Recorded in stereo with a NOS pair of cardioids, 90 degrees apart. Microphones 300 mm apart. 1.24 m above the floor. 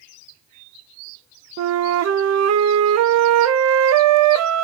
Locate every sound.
1.6 s a flute: 65° right, 0.5 m